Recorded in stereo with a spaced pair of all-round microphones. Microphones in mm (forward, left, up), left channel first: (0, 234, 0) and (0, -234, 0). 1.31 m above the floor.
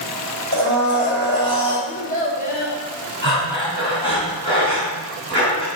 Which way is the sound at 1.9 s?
20° left (ahead or behind).